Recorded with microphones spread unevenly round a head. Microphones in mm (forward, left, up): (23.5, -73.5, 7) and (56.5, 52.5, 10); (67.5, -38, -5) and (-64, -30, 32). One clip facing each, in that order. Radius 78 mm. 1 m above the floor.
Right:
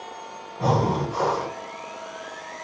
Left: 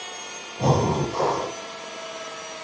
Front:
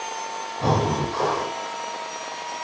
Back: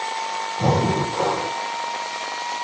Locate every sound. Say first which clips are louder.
0.6 s breathing: left 1 dB, back 2 dB; 135° left, 1.8 m